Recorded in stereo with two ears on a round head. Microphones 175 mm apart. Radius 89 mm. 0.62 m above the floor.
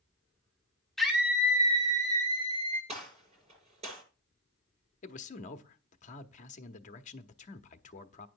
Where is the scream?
Centre (ahead or behind), 1.2 m; by 2.8 s 30° right (ahead or behind), 3 m.